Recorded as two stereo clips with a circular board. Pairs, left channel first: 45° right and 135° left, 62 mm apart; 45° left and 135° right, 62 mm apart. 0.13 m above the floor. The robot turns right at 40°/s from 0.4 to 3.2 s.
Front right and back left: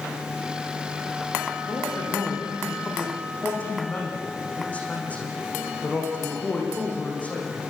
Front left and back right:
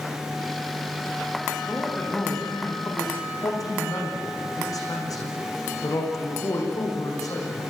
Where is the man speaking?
40° right, 9 m; by 7.7 s 25° left, 9 m.